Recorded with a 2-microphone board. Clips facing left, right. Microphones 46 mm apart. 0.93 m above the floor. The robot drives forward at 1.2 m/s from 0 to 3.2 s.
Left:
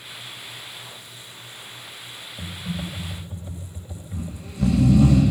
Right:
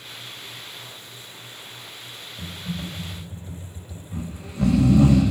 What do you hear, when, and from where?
2.4 s typing on a keyboard: 15° left (ahead or behind), 3 m; by 5.1 s 25° left (ahead or behind), 2 m
4.1 s snoring: 35° right (ahead or behind), 8.5 m